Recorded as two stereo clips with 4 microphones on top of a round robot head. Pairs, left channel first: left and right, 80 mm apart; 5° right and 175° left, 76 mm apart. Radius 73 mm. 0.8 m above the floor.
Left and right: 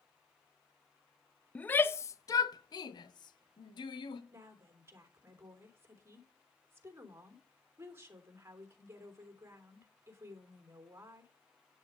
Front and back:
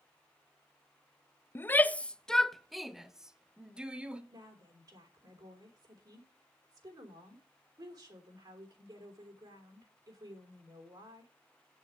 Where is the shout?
30° left, 0.6 m; by 4.2 s 95° left, 1.7 m.